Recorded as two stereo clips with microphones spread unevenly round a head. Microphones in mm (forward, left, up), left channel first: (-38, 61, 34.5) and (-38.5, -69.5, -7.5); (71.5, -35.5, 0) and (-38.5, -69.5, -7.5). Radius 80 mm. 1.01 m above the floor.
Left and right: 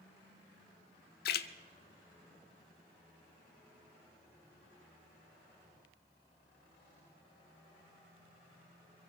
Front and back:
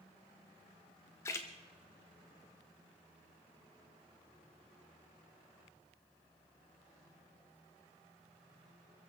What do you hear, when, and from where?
1.2 s a splash: 90° left, 0.8 m